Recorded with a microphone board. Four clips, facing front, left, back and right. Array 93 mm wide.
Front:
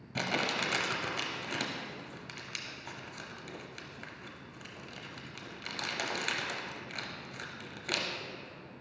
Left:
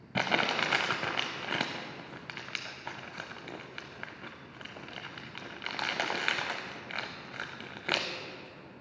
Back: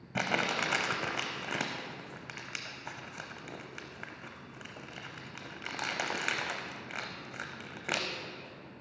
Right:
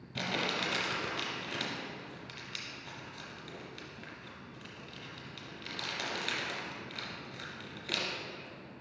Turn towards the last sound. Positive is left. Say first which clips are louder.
# left 6 dB, back 2 dB
turn(degrees=115)